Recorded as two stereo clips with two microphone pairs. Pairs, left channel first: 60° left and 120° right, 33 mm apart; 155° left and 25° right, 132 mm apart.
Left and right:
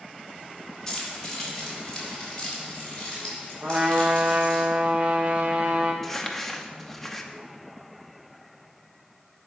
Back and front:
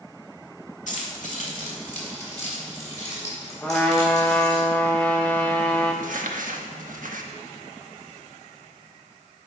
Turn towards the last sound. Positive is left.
turn(degrees=-25)